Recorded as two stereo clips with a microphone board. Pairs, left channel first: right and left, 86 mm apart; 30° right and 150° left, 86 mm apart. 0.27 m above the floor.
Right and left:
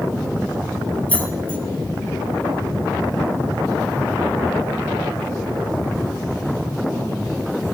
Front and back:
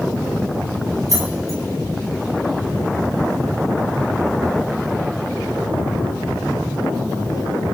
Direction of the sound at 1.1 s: 160° right.